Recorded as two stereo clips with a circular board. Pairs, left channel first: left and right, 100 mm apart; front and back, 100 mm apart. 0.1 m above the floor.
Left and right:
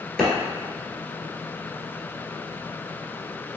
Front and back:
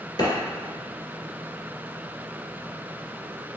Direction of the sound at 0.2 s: 5° left.